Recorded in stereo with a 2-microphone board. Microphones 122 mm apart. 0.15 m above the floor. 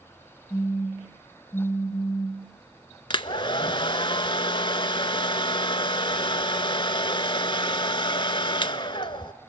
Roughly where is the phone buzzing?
Left.